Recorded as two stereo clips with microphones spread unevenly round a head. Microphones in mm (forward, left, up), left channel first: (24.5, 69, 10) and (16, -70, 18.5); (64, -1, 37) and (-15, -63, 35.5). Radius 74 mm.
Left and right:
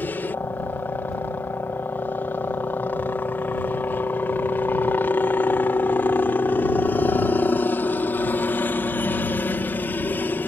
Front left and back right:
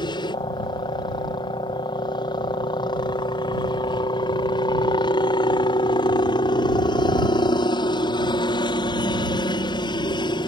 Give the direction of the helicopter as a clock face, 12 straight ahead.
12 o'clock.